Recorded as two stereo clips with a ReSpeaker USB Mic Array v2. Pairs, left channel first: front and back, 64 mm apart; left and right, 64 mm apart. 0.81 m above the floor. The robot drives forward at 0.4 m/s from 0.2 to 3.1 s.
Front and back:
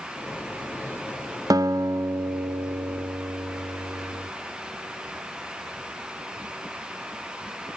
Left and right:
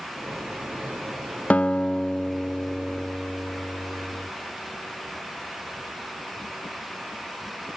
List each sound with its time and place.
1.5 s a guitar: 160° left, 0.8 m; by 4.3 s 170° left, 1.4 m